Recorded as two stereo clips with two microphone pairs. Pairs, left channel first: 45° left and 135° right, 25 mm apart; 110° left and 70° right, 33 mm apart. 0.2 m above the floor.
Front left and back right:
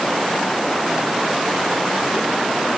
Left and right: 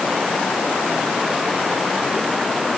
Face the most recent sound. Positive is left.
No sound to turn to.